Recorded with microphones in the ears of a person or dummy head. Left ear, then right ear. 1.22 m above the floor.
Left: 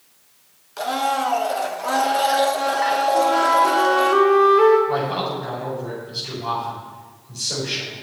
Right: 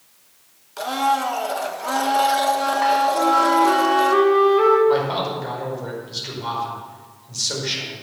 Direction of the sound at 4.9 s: 50° right (ahead or behind).